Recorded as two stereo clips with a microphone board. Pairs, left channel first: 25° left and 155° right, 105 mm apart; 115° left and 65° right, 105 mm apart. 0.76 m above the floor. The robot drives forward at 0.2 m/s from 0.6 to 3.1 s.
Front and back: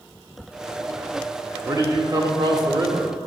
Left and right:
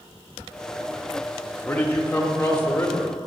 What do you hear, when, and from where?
1.6 s a man speaking: 175° left, 1.2 m